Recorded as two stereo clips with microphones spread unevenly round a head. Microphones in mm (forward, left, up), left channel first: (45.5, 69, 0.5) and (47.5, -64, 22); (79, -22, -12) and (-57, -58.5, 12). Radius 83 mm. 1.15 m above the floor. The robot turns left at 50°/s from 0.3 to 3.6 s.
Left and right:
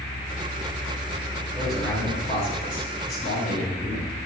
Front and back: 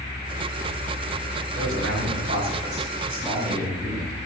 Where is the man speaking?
170° right, 6 m; by 4.3 s 90° left, 6 m.